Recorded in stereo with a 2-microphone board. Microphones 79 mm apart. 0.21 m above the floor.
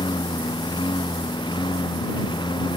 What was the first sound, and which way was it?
A lawn mower, 85° left.